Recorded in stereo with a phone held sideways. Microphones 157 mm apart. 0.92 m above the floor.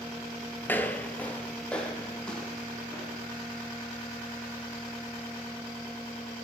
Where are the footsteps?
15° left (ahead or behind), 0.9 m; by 3.5 s 5° left (ahead or behind), 4 m.